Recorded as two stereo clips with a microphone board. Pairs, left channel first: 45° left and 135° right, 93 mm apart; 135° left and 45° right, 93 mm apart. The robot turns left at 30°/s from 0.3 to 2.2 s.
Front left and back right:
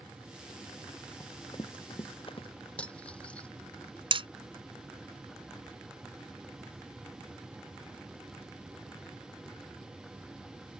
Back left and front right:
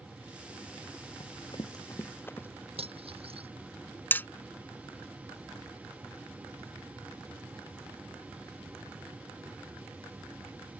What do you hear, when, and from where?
1.2 s running footsteps: 100° left; by 2.5 s 65° left
2.8 s cutlery clinking: 35° right
4.1 s hammering: 155° right